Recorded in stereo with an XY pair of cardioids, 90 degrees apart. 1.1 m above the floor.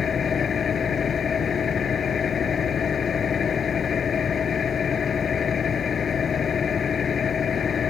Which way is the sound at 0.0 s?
50° left.